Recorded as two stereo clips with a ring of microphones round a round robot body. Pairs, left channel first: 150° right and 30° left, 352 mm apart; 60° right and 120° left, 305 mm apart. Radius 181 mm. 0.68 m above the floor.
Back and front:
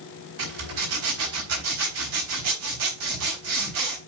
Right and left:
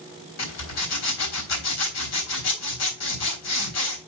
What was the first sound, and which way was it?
A zipper, 20° right.